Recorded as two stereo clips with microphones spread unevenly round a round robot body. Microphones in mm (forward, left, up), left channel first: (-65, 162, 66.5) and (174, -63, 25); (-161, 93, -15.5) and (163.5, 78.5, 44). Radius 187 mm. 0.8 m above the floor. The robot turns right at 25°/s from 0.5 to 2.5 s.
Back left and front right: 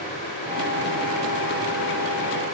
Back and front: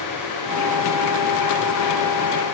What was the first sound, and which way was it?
Only background noise.